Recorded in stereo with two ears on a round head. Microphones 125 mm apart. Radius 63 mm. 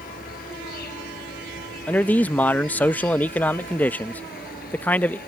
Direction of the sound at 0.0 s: 70° left (ahead or behind).